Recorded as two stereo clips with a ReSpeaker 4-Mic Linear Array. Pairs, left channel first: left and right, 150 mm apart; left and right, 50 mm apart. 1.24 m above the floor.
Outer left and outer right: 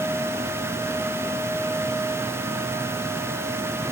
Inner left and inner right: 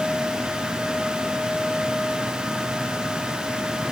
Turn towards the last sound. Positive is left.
No sound to turn to.